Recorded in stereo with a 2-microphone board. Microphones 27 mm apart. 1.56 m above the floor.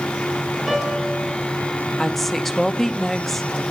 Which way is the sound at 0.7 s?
25° right (ahead or behind).